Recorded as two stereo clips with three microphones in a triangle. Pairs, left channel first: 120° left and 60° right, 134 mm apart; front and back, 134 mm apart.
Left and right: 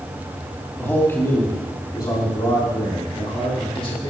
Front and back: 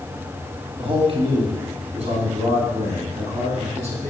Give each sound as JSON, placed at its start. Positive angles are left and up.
{"t": 0.8, "sound": "a man speaking", "azimuth_deg": -170, "distance_m": 2.0}